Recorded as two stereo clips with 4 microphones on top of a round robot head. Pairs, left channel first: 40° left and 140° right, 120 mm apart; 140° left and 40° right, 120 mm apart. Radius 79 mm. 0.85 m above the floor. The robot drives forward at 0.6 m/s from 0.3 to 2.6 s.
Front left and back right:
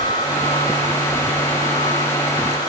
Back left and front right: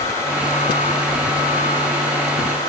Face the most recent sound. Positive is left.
No sound to turn to.